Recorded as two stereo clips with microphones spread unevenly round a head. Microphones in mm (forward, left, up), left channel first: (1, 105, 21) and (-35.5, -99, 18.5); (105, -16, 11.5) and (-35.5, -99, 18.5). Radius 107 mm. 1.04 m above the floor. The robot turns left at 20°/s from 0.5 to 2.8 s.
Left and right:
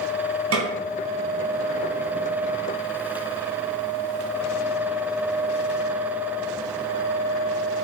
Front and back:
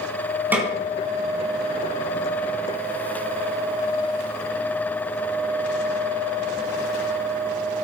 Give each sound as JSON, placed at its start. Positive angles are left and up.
{"t": 0.5, "sound": "a snare drum", "azimuth_deg": -70, "distance_m": 3.5}